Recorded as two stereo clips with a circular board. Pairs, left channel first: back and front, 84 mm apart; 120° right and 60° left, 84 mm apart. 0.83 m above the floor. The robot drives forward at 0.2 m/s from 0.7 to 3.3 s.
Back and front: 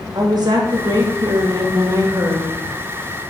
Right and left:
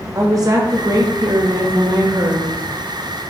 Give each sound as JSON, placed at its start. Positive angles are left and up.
{"t": 0.1, "sound": "a woman speaking", "azimuth_deg": 20, "distance_m": 0.9}